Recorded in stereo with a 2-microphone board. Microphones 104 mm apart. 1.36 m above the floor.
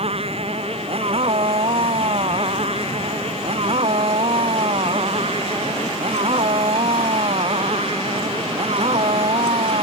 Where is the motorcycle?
70° right (ahead or behind).